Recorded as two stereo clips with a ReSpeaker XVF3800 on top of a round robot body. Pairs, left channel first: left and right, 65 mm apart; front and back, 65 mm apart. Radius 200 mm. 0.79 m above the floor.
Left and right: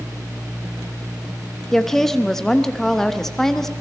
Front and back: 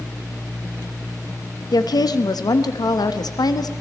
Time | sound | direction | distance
1.7 | a woman speaking | 5° left | 1.1 m